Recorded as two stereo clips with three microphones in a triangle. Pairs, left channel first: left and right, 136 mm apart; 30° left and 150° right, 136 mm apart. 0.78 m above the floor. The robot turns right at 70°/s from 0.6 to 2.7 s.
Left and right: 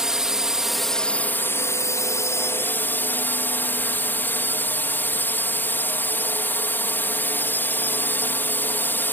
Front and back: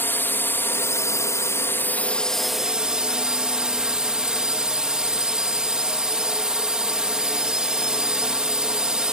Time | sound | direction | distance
0.0 | a drone | 10° right | ?